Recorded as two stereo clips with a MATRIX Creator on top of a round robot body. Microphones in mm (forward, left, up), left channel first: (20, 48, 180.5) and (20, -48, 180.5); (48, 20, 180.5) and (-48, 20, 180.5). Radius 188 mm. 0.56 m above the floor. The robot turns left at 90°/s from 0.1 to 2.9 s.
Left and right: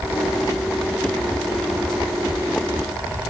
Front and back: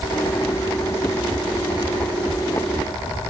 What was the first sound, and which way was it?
Only background noise.